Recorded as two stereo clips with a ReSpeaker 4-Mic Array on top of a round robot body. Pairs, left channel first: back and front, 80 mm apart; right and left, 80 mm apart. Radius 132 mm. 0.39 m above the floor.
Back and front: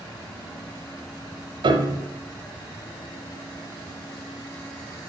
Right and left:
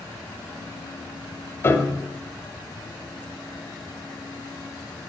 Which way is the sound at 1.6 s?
30° right.